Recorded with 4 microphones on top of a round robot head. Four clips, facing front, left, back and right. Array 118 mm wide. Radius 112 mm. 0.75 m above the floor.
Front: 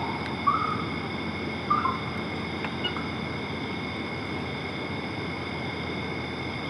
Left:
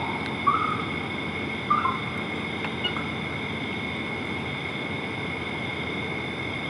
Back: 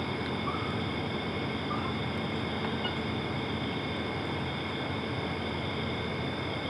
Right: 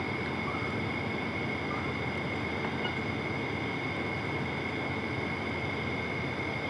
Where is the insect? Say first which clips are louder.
Left 8 dB, front 5 dB; 55° left.